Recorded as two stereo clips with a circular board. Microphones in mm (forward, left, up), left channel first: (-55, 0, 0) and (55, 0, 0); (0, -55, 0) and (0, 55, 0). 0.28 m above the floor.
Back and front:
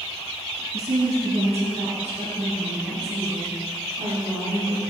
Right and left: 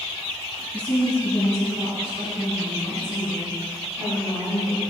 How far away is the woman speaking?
About 3.5 m.